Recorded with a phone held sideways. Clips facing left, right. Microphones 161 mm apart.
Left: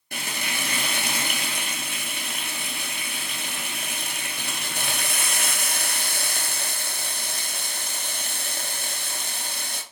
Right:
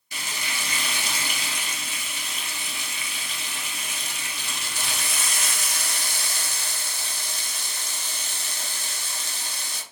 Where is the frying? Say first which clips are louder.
Left 3 dB; 60° left (ahead or behind), 0.7 m.